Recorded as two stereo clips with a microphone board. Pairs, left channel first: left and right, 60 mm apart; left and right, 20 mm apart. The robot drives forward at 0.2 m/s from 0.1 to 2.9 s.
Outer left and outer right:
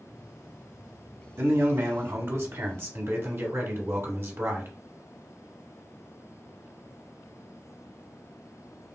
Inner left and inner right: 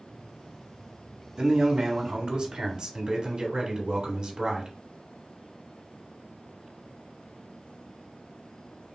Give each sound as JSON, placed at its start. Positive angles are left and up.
{"t": 1.4, "sound": "a man speaking", "side_deg": -50, "distance_m": 1.1}